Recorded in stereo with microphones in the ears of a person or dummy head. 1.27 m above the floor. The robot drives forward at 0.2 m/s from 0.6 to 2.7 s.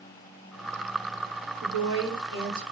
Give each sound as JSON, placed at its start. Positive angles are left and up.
{"t": 1.6, "sound": "a woman speaking", "side_deg": -70, "distance_m": 1.3}